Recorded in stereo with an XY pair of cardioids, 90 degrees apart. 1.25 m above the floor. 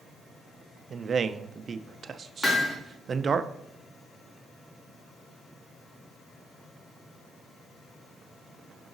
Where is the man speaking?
45° right, 0.5 m.